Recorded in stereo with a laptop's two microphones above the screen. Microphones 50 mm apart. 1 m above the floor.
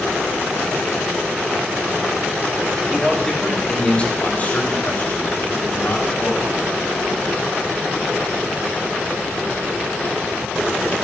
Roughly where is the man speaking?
Centre.